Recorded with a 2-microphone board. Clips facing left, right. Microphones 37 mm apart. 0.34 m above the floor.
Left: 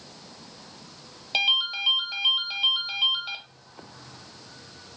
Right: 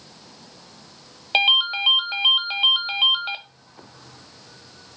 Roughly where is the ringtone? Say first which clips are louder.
Right 5 dB; right.